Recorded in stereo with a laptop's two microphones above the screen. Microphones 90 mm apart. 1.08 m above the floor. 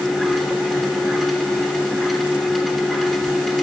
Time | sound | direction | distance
0.0 | a machine running | centre (ahead or behind) | 0.9 m